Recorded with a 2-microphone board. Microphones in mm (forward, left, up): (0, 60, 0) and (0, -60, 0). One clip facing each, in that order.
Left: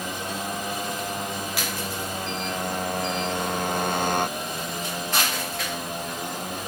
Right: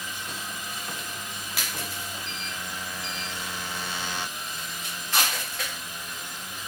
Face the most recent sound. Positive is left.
turn(degrees=50)  # may be behind; listen again after turning